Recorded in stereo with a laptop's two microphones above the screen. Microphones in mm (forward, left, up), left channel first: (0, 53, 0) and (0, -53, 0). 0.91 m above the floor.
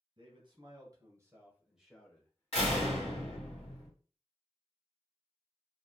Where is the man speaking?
45° right (ahead or behind), 1.3 m; by 3.5 s 45° left (ahead or behind), 1.2 m.